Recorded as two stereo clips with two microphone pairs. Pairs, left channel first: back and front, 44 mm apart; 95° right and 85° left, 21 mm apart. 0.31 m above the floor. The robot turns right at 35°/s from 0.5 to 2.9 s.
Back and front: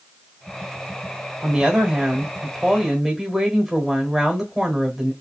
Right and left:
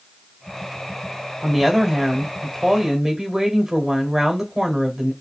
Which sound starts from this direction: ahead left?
A woman speaking, at 1.4 s.